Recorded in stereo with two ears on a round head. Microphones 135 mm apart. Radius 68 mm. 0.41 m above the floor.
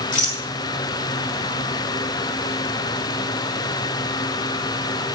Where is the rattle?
60° left (ahead or behind), 3 m.